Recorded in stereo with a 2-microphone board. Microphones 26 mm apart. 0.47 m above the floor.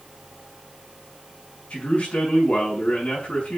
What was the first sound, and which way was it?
A man speaking, 45° left (ahead or behind).